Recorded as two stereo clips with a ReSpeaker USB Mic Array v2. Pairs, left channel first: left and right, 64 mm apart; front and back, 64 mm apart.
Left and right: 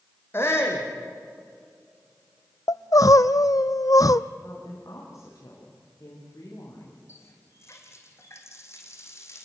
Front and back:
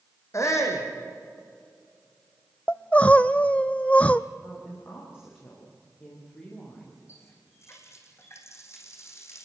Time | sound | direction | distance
0.3 | a shout | 40° left | 5 m
2.7 | crying | 70° left | 0.7 m
4.4 | a woman speaking | 50° left | 6 m
7.1 | a running tap | 45° left | 4 m